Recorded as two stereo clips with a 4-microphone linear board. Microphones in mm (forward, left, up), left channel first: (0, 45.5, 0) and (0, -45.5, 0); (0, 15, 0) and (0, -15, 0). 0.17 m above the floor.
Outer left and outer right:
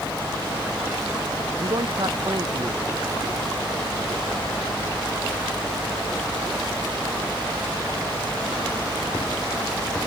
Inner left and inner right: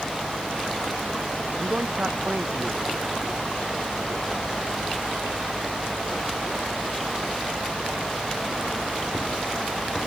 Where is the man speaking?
55° right (ahead or behind).